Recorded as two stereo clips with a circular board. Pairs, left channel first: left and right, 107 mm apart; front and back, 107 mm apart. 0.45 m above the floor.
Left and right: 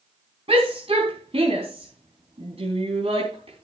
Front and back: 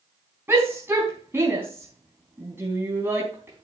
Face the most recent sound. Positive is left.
turn(degrees=-110)